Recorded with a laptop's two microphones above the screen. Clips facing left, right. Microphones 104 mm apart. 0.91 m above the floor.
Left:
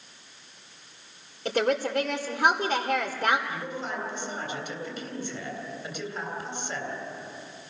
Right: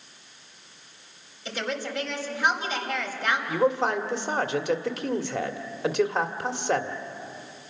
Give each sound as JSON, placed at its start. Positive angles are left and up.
{"t": 1.4, "sound": "a woman speaking", "side_deg": 50, "distance_m": 2.5}
{"t": 3.5, "sound": "a man speaking", "side_deg": -80, "distance_m": 2.0}